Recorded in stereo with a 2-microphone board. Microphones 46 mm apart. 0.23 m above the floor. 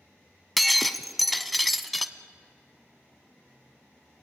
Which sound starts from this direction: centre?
Breaking glass, at 0.6 s.